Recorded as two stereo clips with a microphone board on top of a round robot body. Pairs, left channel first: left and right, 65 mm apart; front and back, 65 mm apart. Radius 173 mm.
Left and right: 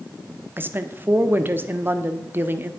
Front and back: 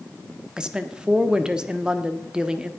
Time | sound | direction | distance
0.6 | a woman speaking | 110° right | 1.3 m